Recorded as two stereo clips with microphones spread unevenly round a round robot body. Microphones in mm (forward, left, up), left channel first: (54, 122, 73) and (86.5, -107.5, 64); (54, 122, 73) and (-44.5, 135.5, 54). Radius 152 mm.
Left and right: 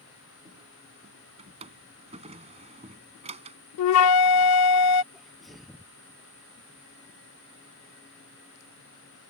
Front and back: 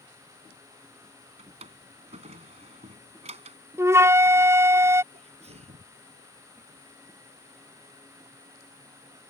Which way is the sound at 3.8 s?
105° left.